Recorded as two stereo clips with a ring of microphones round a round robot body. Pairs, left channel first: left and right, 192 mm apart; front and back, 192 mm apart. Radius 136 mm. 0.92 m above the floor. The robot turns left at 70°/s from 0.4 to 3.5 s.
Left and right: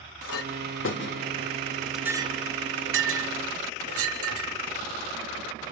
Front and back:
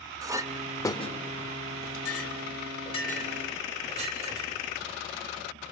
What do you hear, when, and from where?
0.2 s a clink: 105° left, 1.5 m; by 4.5 s 110° right, 1.5 m